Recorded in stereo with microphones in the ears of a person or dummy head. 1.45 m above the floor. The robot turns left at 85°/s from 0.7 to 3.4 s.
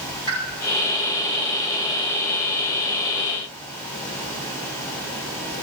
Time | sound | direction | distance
0.3 | a pop | 15° left (ahead or behind) | 9.5 m